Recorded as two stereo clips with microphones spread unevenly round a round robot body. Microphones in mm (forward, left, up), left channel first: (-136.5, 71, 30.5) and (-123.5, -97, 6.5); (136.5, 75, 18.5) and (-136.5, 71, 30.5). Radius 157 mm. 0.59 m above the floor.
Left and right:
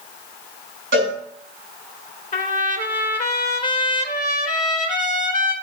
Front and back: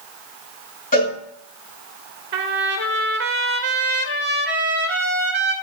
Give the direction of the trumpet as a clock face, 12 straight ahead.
8 o'clock.